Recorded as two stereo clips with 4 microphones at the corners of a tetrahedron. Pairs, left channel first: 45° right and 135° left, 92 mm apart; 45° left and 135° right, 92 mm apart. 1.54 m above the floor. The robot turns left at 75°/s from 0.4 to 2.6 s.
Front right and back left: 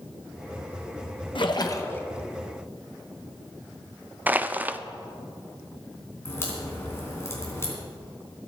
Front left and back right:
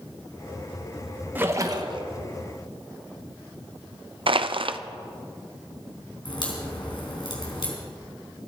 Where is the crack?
15° left, 3.5 m.